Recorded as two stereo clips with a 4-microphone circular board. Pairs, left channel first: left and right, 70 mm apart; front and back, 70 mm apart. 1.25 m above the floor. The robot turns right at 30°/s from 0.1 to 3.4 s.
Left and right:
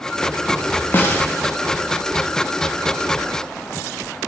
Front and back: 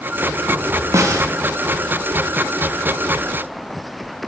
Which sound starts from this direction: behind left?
A snare drum, at 0.9 s.